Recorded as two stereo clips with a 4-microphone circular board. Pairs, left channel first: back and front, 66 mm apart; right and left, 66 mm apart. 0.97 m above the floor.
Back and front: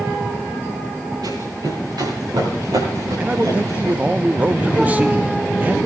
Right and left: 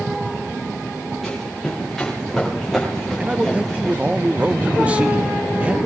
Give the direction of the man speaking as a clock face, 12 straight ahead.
11 o'clock.